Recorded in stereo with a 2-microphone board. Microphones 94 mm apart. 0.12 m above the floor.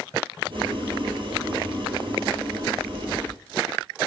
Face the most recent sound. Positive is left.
turn(degrees=-55)  # may be behind; listen again after turning